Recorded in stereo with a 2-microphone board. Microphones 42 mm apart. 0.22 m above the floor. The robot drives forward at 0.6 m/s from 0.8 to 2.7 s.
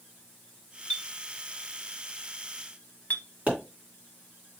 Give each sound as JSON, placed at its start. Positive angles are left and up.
{"t": 0.9, "sound": "a clink", "side_deg": 25, "distance_m": 1.4}
{"t": 3.5, "sound": "a pop", "side_deg": -35, "distance_m": 3.0}